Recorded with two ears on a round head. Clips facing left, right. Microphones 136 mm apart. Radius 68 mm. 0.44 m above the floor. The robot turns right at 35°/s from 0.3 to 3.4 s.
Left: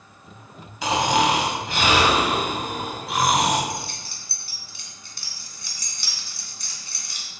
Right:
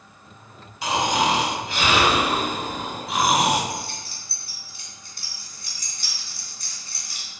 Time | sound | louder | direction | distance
0.8 | snoring | left 2 dB | 100° left | 3.5 m
3.7 | keys jangling | even | 60° left (ahead or behind) | 2.5 m